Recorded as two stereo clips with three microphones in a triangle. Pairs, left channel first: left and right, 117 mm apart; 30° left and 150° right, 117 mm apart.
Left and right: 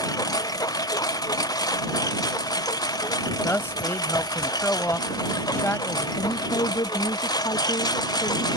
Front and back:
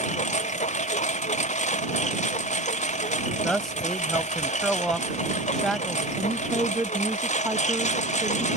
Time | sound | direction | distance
0.0 | a lawn mower | 30° left | ?
3.4 | a man speaking | 110° left | ?
6.2 | a woman speaking | 140° left | ?